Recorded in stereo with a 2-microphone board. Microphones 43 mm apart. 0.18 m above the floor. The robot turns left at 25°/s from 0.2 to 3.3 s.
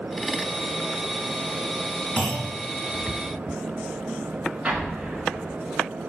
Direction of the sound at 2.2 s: 30° left (ahead or behind).